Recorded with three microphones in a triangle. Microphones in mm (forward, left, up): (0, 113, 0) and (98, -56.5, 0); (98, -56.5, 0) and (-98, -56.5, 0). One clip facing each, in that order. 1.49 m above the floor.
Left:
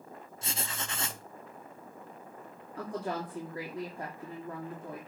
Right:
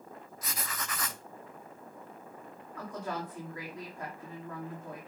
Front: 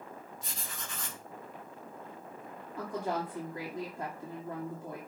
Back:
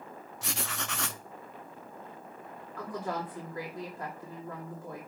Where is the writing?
Straight behind, 0.6 m.